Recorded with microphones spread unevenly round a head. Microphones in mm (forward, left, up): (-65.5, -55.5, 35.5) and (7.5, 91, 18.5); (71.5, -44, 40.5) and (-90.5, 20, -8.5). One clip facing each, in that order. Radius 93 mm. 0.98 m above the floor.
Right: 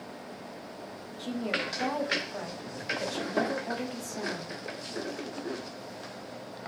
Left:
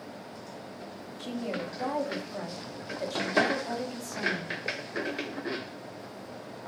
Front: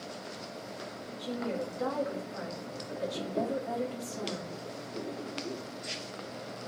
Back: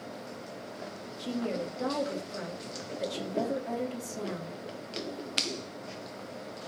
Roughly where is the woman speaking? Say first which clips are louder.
Right 1 dB, back 2 dB; behind left.